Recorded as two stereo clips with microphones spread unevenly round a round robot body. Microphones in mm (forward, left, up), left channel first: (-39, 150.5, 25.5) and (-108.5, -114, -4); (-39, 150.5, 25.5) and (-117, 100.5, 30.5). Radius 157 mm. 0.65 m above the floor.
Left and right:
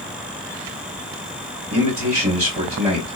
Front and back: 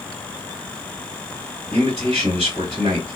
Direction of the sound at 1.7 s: 60° right.